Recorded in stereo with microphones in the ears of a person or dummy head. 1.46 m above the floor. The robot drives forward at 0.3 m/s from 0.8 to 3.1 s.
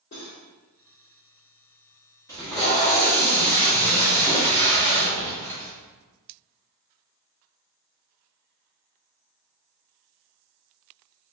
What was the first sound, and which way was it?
Cutlery clinking, 45° left (ahead or behind).